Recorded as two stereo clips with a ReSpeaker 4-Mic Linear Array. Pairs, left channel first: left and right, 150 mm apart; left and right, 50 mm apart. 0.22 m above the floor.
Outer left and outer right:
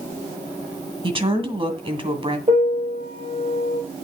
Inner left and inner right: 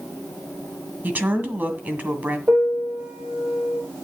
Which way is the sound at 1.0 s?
35° right (ahead or behind).